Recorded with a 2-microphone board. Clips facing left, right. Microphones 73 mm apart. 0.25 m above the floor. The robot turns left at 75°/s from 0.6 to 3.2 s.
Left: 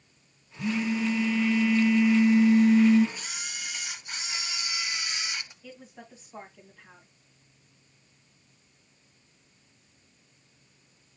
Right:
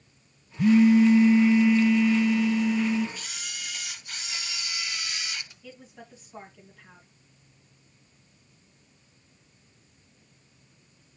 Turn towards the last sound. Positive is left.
turn(degrees=10)  # may be behind; listen again after turning